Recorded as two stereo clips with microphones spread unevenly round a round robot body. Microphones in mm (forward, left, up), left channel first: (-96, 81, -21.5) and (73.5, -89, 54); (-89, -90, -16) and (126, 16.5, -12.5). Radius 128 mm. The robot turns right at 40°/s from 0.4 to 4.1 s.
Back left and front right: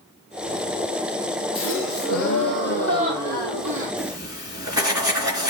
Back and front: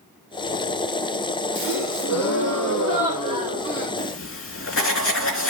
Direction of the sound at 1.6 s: 170° left.